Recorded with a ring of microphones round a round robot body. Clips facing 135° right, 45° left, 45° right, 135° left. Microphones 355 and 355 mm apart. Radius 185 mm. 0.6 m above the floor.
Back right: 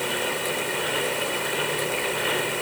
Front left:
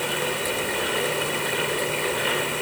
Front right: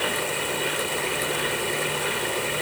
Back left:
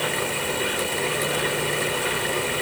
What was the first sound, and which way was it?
Only background noise.